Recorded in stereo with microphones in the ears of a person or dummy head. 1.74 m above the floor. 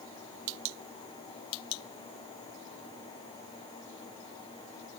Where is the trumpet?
I don't hear a trumpet.